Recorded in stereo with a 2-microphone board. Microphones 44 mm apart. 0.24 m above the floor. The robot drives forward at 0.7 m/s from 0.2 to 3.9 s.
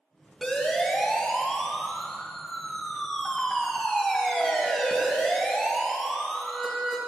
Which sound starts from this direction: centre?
A siren, at 0.4 s.